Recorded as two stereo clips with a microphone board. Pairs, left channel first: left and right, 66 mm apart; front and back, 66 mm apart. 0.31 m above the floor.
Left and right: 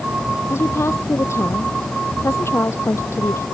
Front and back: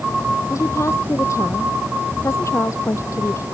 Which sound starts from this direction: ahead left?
A woman speaking, at 0.5 s.